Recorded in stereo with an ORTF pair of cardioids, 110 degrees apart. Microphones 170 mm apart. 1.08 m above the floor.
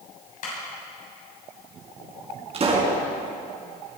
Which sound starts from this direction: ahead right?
A pop, at 2.5 s.